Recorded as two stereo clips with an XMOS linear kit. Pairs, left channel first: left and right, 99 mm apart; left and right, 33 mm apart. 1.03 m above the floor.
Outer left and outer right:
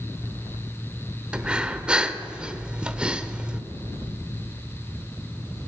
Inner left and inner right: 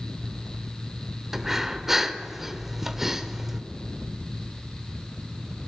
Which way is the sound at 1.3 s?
10° right (ahead or behind).